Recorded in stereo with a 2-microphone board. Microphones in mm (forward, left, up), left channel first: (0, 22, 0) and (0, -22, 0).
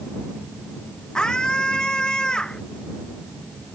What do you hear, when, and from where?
1.1 s a scream: 15° left (ahead or behind)